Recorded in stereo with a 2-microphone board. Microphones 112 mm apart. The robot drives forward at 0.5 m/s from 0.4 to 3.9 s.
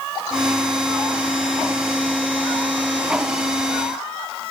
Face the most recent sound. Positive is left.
No sound to turn to.